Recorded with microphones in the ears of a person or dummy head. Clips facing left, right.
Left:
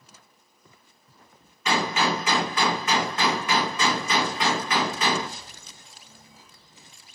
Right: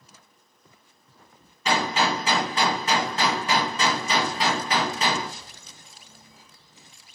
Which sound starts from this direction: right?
A gunshot, at 1.6 s.